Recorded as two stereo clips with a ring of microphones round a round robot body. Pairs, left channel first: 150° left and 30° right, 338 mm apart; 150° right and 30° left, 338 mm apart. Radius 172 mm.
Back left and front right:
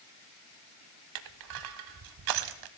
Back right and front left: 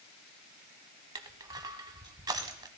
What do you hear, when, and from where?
1.1 s crushing: 50° right, 0.7 m